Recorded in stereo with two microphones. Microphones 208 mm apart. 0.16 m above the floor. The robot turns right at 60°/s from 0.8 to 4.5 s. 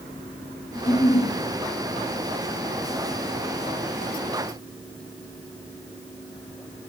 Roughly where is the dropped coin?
I don't hear a dropped coin.